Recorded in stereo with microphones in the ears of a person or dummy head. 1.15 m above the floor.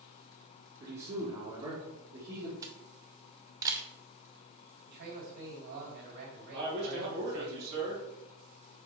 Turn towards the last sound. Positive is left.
turn(degrees=-55)  # may be behind; listen again after turning